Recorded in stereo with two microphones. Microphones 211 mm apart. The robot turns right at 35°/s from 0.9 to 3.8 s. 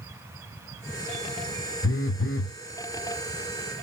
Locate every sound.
1.8 s a phone buzzing: 80° left, 0.6 m; by 2.5 s 70° left (ahead or behind), 0.6 m